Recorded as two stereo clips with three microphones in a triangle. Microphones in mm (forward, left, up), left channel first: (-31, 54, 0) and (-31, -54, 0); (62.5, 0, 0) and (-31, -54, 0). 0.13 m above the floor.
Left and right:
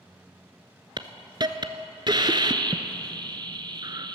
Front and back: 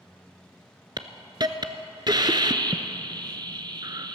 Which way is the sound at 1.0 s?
120° right.